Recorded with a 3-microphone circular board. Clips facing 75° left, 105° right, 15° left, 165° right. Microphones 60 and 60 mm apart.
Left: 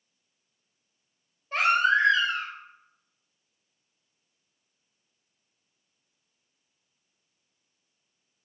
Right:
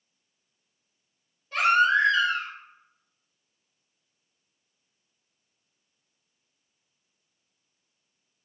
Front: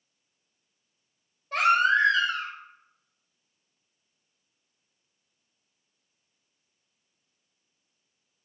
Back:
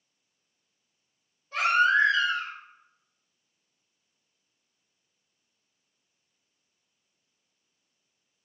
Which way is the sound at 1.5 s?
20° left.